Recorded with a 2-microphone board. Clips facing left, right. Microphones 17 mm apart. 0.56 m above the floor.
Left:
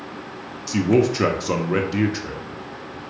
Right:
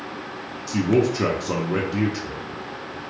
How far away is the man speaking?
About 0.7 m.